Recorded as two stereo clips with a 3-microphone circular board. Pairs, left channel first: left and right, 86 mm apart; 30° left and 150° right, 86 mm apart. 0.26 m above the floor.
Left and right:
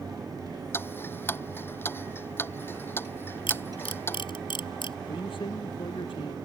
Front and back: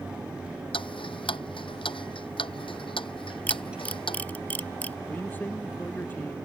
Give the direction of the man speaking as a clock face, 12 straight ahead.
9 o'clock.